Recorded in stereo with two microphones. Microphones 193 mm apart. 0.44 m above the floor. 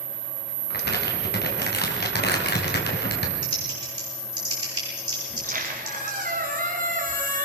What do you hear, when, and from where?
0.7 s crumpling: 60° left (ahead or behind), 4 m
3.4 s typing on a keyboard: 20° right (ahead or behind), 9 m
5.3 s a squeak: 45° right (ahead or behind), 3 m